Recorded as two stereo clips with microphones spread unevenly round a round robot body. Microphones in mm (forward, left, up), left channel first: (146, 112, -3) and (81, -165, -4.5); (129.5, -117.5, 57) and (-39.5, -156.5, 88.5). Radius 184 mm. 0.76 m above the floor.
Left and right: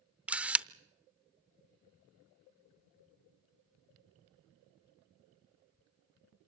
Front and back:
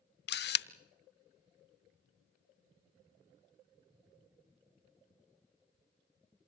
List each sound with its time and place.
0.3 s a camera shutter: 15° right, 0.7 m